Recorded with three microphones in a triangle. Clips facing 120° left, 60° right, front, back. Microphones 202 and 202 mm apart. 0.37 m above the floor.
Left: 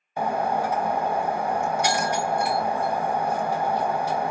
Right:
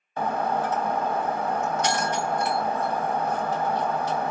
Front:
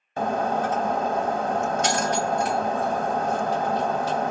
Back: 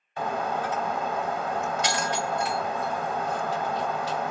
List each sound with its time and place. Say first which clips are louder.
0.2 s breaking glass: left 1 dB, front 5 dB; 45° left, 0.8 m